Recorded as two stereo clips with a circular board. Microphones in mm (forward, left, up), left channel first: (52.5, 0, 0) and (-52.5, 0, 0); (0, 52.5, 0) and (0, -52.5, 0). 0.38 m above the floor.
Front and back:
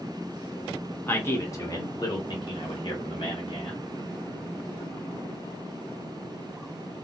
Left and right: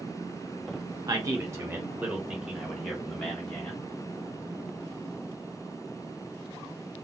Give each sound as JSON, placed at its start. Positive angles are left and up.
{"t": 1.1, "sound": "a man speaking", "azimuth_deg": -60, "distance_m": 1.2}